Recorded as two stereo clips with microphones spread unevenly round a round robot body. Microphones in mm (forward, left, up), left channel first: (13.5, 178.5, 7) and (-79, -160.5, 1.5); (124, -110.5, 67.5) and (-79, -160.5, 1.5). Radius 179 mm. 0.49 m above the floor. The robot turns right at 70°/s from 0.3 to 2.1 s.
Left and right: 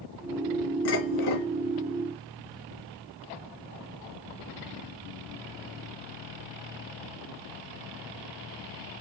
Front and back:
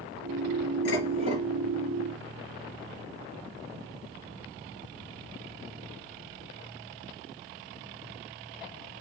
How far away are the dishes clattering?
About 3 m.